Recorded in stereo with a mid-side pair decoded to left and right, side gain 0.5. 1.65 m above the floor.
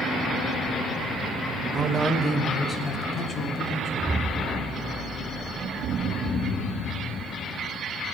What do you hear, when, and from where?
1.7 s a man speaking: 45° right, 0.9 m; by 3.9 s 40° left, 3 m
4.0 s an explosion: 15° right, 0.5 m